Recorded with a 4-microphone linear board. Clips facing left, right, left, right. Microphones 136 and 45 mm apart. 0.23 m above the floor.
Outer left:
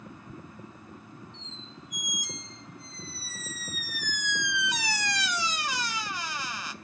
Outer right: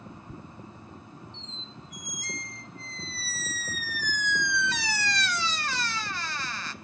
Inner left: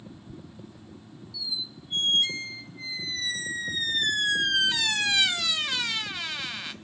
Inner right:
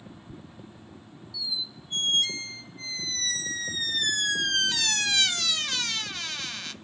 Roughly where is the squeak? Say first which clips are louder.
Outer right 1 dB, inner right 1 dB; centre.